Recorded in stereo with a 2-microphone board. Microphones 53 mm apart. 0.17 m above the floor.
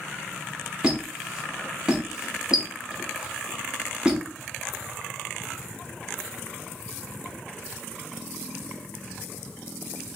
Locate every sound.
0.8 s a squeak: 15° right (ahead or behind), 0.8 m